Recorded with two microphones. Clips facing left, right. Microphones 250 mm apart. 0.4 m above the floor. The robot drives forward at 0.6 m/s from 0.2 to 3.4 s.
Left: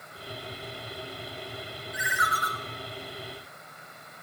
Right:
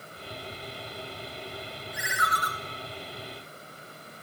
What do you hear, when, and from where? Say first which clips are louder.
1.9 s a ringtone: right 1 dB; 50° right (ahead or behind), 0.7 m; by 2.5 s 35° right (ahead or behind), 1.0 m